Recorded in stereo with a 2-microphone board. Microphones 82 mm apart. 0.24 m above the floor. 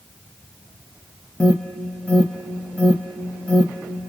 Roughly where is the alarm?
Centre.